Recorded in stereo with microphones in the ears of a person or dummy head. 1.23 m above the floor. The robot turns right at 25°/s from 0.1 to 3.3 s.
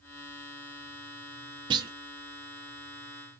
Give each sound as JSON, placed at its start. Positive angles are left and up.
{"t": 1.7, "sound": "a clunk", "side_deg": -25, "distance_m": 0.9}